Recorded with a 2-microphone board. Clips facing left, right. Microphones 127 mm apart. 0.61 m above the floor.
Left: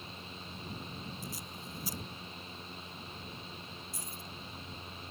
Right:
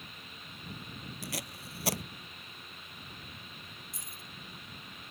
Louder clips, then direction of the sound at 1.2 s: Right 2 dB; 75° right (ahead or behind).